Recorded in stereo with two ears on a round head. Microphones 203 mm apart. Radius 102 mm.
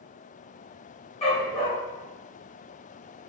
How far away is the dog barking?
About 1.7 m.